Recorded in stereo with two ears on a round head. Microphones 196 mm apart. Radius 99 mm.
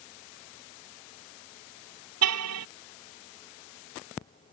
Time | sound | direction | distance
2.2 | a car horn | 85° right | ?